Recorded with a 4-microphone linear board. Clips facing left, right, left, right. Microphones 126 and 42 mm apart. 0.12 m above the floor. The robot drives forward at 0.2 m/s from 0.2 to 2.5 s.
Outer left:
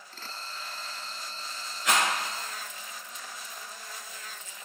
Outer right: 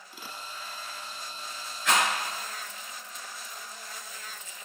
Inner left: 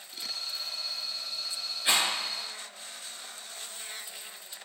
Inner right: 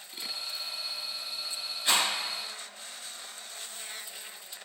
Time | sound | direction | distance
1.9 | a rattle | 20° left (ahead or behind) | 1.8 m